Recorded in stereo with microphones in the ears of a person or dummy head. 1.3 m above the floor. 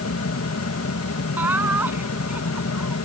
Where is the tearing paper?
No tearing paper in this recording.